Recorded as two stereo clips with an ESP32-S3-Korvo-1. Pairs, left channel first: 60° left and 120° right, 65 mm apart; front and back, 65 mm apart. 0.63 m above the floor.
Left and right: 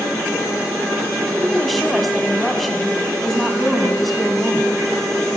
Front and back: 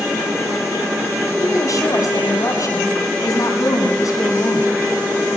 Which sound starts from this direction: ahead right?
A woman speaking, at 1.4 s.